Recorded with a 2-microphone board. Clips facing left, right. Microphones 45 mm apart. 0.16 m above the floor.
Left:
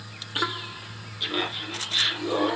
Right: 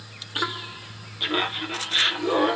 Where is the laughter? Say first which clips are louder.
Right 3 dB; 25° right (ahead or behind), 1.1 m; by 2.6 s 40° right (ahead or behind), 1.4 m.